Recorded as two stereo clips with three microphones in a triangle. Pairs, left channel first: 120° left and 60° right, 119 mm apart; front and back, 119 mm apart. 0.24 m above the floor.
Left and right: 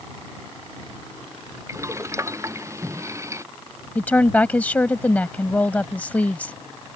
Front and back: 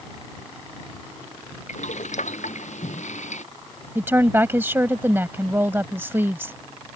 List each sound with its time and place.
1.7 s boiling: 5° left
4.0 s a woman speaking: 165° left